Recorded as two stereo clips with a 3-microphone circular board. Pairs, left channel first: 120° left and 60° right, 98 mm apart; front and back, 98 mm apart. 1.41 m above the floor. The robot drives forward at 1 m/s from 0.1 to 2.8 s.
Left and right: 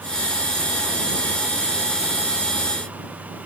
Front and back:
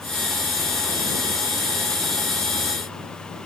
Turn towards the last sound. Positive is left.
No sound to turn to.